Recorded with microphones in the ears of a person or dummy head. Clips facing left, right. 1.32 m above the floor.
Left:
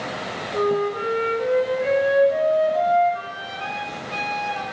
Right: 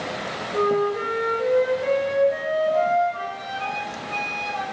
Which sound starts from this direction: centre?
A flute, at 0.5 s.